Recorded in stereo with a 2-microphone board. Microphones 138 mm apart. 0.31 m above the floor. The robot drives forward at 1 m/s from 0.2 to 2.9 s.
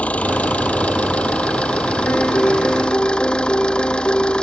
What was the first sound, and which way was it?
An engine running, 10° left (ahead or behind).